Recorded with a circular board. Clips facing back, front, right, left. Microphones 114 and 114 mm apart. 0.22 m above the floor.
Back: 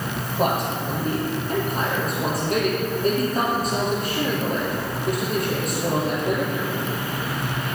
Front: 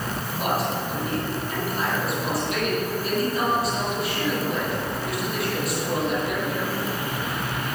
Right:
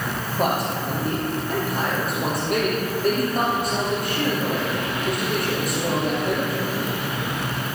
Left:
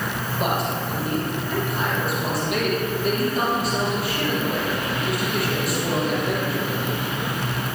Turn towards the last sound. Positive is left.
turn(degrees=-135)